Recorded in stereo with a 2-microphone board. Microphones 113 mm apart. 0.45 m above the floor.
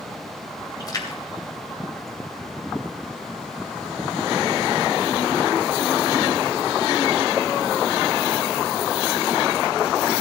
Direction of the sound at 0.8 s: 35° left (ahead or behind).